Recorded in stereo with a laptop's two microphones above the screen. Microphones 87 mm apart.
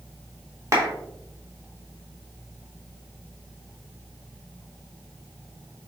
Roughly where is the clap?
Right.